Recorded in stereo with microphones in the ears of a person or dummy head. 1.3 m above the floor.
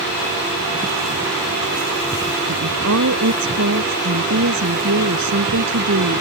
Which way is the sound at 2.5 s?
85° right.